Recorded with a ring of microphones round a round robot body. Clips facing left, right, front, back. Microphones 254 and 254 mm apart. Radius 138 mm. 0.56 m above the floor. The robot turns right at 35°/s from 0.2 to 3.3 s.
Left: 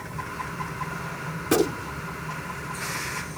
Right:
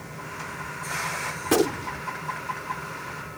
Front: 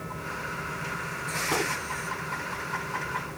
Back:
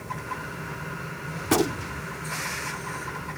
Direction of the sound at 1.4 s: 175° left.